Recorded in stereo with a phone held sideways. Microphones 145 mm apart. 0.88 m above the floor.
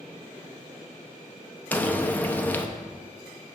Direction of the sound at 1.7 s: 10° left (ahead or behind).